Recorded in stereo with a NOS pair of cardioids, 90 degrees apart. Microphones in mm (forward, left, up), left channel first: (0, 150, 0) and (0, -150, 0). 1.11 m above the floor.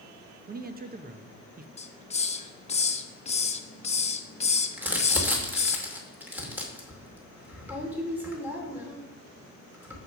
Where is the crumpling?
5° right, 2.5 m.